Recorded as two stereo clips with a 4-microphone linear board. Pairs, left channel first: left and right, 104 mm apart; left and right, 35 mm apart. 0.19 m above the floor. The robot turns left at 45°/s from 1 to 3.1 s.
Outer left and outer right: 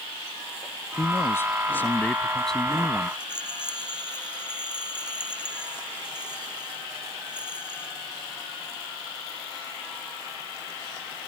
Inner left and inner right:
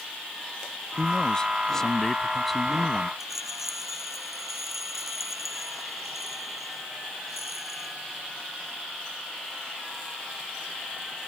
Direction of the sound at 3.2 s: 10° right (ahead or behind).